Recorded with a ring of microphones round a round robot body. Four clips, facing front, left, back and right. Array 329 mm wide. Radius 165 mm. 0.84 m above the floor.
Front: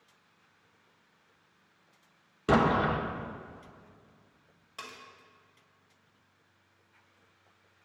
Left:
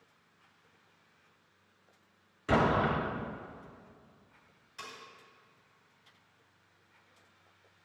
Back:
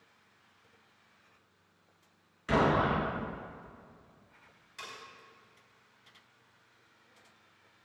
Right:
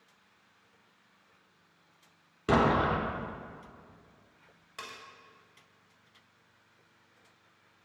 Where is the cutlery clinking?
50° right, 2.5 m.